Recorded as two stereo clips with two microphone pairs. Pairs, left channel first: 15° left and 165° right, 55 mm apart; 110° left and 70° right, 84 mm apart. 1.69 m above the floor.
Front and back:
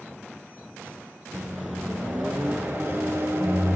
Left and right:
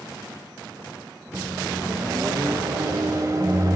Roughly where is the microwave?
Behind right.